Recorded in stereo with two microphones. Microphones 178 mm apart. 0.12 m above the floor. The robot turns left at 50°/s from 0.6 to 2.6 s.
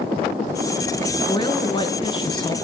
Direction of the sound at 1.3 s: 25° left (ahead or behind).